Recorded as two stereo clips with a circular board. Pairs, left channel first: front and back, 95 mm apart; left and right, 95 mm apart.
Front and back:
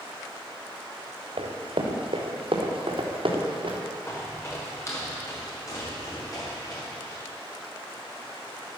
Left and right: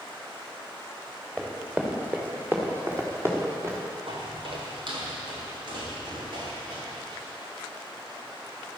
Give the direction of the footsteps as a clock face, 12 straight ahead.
2 o'clock.